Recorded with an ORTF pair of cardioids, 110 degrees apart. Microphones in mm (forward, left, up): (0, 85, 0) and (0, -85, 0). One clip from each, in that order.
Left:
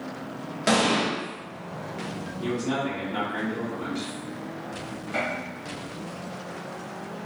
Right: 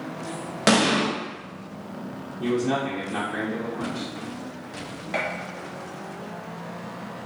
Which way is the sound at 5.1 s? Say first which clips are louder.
Right 1 dB; 55° right.